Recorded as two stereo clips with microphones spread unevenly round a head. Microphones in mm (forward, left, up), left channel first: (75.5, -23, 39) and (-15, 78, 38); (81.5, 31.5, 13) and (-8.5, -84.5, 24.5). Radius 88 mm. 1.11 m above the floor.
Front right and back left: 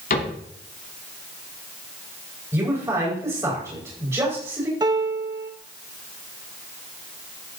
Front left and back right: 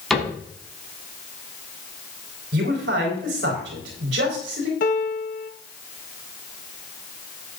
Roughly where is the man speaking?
Behind right.